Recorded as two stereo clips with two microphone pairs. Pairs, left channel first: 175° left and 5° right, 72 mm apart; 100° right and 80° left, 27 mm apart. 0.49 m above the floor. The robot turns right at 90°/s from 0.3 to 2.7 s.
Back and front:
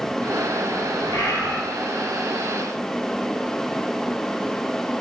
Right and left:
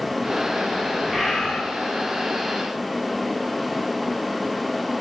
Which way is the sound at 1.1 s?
150° left.